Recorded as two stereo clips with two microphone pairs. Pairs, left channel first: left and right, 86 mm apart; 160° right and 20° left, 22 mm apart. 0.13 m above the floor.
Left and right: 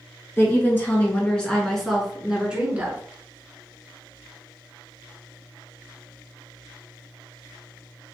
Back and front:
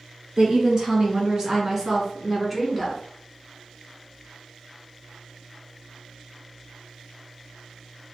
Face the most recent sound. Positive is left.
turn(degrees=-60)